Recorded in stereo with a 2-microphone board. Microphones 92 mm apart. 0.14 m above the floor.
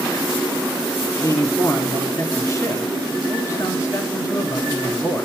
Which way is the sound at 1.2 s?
35° left (ahead or behind).